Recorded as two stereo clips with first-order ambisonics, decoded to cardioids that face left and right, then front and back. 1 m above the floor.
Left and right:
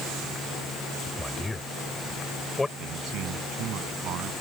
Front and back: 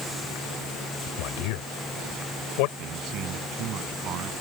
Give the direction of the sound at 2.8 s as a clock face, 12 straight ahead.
4 o'clock.